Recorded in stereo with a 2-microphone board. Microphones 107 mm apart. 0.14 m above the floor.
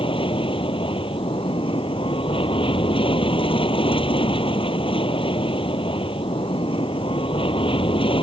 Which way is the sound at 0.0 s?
55° left (ahead or behind).